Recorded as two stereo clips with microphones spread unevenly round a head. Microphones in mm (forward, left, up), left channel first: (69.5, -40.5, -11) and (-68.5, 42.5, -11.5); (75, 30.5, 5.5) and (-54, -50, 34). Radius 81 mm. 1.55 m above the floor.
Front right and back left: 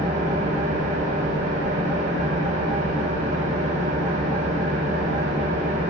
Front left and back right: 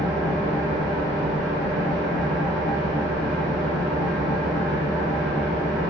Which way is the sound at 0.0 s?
160° left.